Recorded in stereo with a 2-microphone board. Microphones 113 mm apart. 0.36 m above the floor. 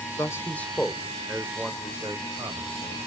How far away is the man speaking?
About 0.9 m.